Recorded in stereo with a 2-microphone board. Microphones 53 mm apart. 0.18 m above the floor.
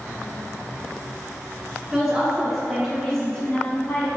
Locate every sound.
1.9 s a woman speaking: 10° right (ahead or behind), 1.9 m; by 4.1 s 25° left (ahead or behind), 1.4 m